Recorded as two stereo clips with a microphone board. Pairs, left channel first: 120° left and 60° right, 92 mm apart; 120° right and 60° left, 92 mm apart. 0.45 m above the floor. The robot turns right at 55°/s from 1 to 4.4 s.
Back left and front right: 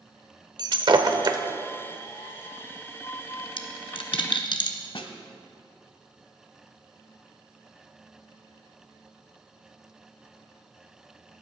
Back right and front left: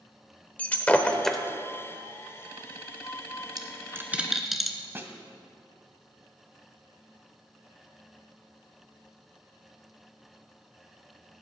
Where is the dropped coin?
105° left, 1.3 m; by 4.8 s 150° left, 1.3 m.